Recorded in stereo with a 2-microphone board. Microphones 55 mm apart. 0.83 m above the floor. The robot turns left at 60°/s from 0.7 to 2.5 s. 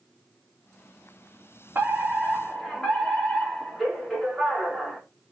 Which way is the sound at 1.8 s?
135° right.